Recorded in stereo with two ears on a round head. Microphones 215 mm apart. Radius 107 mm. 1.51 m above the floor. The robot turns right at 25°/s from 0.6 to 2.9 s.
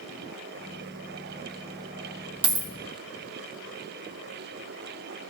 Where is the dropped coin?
20° right (ahead or behind), 0.8 m; by 2.7 s 25° right (ahead or behind), 0.8 m.